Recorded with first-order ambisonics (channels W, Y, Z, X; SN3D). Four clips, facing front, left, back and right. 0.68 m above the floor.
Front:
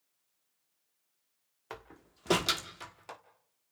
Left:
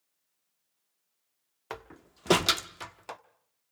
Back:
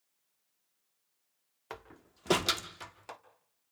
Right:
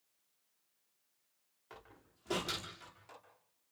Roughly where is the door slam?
Left.